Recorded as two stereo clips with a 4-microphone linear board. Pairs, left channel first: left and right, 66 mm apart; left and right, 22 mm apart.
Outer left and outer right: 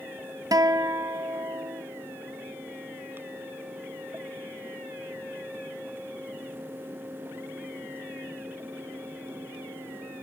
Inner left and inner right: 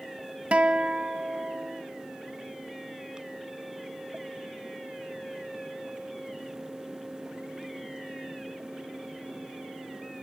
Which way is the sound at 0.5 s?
65° right (ahead or behind).